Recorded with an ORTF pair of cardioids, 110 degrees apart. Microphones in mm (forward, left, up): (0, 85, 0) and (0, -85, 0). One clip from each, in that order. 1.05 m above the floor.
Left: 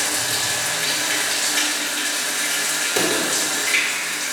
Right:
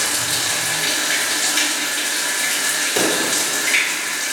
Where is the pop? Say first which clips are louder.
Right 1 dB; 5° right, 2.5 m.